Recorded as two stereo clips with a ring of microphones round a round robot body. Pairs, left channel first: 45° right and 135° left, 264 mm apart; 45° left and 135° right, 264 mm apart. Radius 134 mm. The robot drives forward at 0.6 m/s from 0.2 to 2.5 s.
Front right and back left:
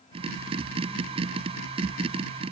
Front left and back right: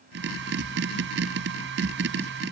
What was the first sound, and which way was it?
Only background noise.